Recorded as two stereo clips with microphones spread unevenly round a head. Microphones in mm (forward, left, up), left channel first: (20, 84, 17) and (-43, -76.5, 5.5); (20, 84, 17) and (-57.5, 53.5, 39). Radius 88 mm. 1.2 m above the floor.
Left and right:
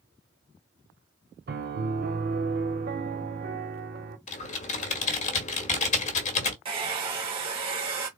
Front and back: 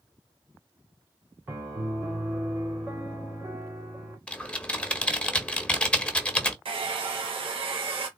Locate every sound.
1.5 s a piano: 105° right, 1.0 m
4.3 s typing on a keyboard: 105° left, 1.2 m
6.7 s a hair dryer: 165° right, 1.8 m